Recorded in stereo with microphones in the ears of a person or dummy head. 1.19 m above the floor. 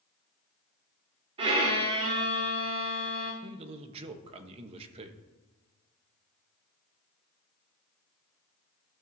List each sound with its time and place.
1.4 s a violin: 30° right (ahead or behind), 1.4 m
3.4 s a man speaking: 35° right (ahead or behind), 1.0 m